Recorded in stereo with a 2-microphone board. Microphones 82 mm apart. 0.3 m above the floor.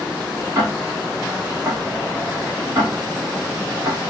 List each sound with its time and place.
0.6 s ticking: 40° right (ahead or behind), 1.2 m